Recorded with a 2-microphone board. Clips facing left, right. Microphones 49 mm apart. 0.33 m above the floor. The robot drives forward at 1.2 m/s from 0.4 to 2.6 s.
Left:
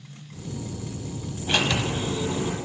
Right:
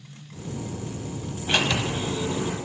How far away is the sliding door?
About 0.9 m.